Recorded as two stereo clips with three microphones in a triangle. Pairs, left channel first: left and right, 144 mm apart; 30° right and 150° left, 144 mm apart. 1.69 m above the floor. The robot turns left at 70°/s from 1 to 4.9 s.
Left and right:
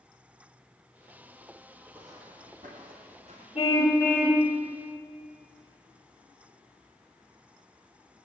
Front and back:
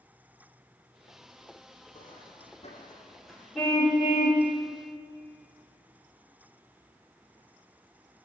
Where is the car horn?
55° left, 3 m; by 4.5 s 15° right, 3 m.